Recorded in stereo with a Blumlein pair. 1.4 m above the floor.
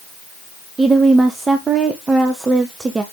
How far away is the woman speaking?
About 1.0 m.